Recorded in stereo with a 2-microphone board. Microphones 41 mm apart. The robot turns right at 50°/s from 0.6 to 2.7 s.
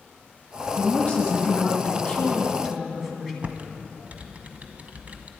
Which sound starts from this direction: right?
Typing on a keyboard, at 3.4 s.